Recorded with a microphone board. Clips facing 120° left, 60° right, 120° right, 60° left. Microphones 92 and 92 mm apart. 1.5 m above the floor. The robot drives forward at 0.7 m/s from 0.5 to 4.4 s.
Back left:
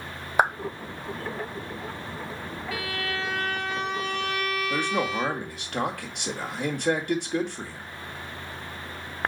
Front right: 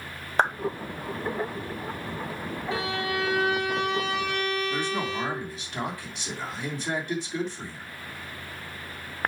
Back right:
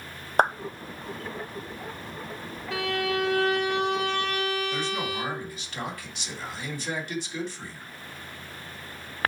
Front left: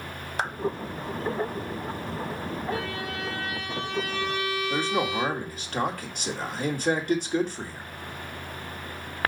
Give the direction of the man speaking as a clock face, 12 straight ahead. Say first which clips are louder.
Back left 2 dB, front left 4 dB; 9 o'clock.